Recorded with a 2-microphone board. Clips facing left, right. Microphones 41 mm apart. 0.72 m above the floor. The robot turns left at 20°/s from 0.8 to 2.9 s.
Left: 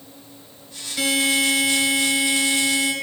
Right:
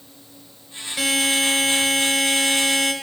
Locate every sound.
1.0 s a buzzer: 25° right, 1.4 m; by 2.9 s 65° right, 1.4 m